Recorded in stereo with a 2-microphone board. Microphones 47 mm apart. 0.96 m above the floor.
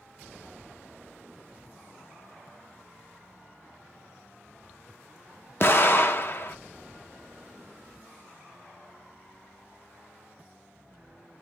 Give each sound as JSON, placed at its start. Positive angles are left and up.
{"t": 5.6, "sound": "an explosion", "side_deg": 45, "distance_m": 0.6}